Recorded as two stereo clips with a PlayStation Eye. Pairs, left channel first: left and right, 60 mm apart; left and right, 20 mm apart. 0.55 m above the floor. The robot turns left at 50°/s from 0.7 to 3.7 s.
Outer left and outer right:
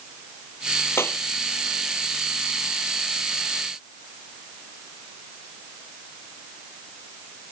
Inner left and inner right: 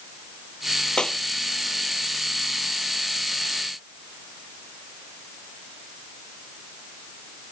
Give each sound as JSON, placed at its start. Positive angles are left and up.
{"t": 1.0, "sound": "a clap", "side_deg": 45}